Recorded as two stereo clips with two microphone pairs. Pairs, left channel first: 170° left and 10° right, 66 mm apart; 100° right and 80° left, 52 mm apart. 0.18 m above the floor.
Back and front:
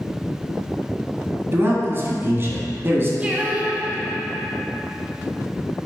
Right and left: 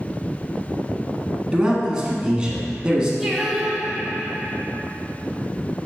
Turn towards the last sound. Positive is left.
turn(degrees=0)